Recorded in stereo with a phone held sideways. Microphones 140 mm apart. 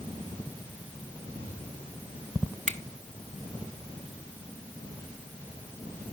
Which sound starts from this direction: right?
A finger snap, at 2.7 s.